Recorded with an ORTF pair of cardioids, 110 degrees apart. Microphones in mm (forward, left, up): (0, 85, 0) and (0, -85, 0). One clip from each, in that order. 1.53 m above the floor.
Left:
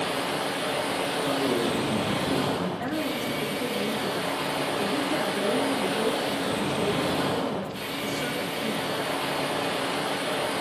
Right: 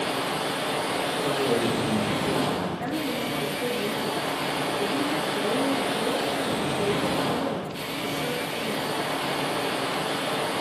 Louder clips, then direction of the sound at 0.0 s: Right 1 dB; 5° right.